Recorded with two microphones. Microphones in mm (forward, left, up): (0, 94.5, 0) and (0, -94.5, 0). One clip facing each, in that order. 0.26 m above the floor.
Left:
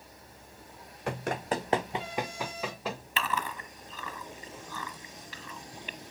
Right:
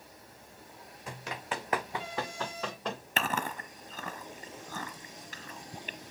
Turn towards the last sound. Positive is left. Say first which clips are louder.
# right 2 dB
turn(degrees=-45)  # may be behind; listen again after turning